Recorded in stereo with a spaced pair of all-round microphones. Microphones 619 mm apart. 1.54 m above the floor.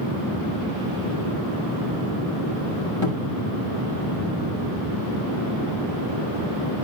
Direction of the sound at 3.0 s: 45° left (ahead or behind).